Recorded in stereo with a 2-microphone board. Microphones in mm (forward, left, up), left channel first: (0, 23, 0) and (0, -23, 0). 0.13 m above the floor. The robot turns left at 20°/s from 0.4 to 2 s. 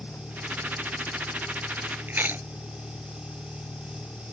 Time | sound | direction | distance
0.0 | a vehicle | 125° left | ?
2.1 | chewing | 45° right (ahead or behind) | ?